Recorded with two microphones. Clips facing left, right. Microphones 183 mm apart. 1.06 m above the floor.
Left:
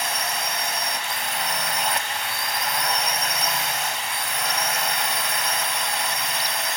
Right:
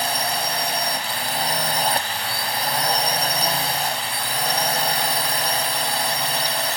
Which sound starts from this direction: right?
A drone, at 0.0 s.